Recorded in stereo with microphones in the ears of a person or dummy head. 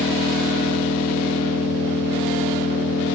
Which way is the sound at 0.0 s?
75° left (ahead or behind).